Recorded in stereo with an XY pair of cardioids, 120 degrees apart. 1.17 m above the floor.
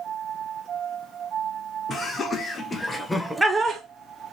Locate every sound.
1.9 s laughter: 35° left, 1.5 m; by 3.8 s 80° right, 0.5 m